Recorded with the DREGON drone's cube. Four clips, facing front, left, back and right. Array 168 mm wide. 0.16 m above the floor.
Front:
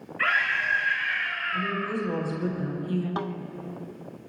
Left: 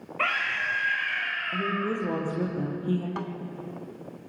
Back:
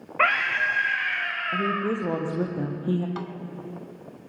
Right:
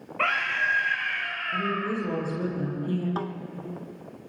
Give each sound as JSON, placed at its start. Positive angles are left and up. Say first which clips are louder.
{"t": 0.2, "sound": "a scream", "louder": "right 2 dB, back 3 dB", "azimuth_deg": -175, "distance_m": 9.0}
{"t": 1.5, "sound": "a woman speaking", "louder": "right 1 dB, back 4 dB", "azimuth_deg": 165, "distance_m": 6.5}
{"t": 3.2, "sound": "a snare drum", "louder": "right 2 dB, front 3 dB", "azimuth_deg": -30, "distance_m": 0.7}